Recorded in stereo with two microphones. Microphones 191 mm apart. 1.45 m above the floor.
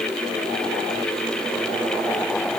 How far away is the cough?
I don't hear a cough.